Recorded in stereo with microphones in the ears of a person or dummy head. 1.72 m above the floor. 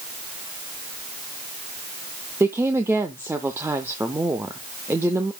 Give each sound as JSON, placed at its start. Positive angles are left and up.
{"t": 2.4, "sound": "a woman speaking", "side_deg": -10, "distance_m": 0.5}